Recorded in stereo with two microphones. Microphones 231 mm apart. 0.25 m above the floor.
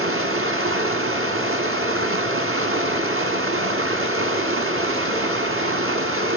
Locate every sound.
0.0 s running water: 65° right (ahead or behind), 1.0 m